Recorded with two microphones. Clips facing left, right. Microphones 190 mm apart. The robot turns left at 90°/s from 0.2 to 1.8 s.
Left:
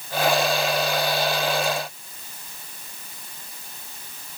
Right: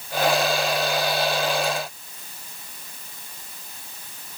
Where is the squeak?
No squeak in this recording.